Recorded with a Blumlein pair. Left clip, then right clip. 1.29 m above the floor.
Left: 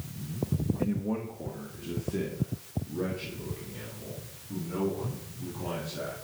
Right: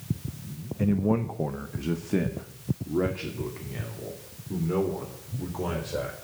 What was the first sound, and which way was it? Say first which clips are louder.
A man speaking: right 10 dB; 15° right.